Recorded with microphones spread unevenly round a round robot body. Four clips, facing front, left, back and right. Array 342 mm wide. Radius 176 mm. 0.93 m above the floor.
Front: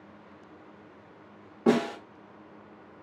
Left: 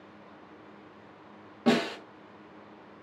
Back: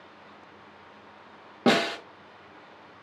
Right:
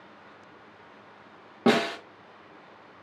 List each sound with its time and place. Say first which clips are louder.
1.7 s a snare drum: right 3 dB, back 1 dB; 145° right, 1.2 m